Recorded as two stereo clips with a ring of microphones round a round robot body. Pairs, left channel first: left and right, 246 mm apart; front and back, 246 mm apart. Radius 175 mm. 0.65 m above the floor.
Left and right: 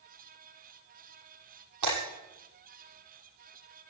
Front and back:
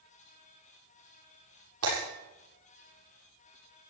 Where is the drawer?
I don't hear a drawer.